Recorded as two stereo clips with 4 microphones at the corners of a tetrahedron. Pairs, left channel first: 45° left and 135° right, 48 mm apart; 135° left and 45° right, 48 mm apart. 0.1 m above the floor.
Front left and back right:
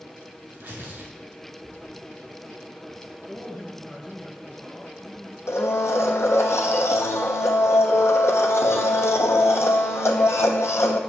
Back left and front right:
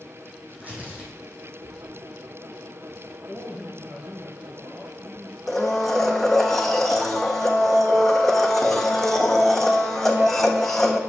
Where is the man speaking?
30° right, 1.5 m.